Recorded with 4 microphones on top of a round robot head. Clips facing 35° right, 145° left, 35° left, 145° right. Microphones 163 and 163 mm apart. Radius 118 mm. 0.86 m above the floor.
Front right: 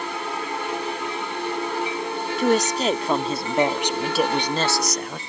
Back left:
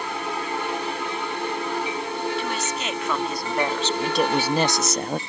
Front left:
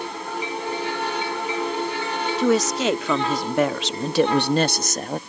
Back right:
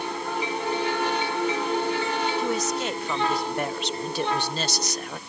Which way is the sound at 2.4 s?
15° left.